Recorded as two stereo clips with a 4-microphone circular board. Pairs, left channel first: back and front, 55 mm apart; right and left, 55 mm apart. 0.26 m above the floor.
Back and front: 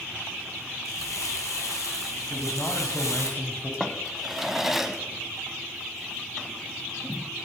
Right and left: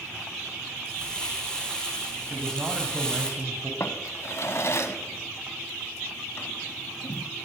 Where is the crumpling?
165° right, 3 m.